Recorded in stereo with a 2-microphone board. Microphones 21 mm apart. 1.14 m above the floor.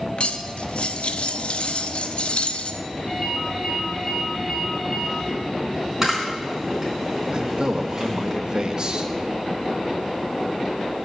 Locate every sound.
0.2 s cutlery clinking: 60° left (ahead or behind), 0.7 m
3.1 s a ringtone: 25° left (ahead or behind), 3 m
6.0 s a camera shutter: 15° right (ahead or behind), 4 m
7.3 s a man speaking: 40° right (ahead or behind), 1.3 m